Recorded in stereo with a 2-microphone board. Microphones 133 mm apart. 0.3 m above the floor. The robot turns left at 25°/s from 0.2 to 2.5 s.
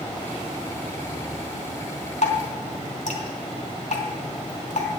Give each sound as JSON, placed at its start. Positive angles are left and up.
{"t": 2.2, "sound": "dripping", "side_deg": 65, "distance_m": 3.0}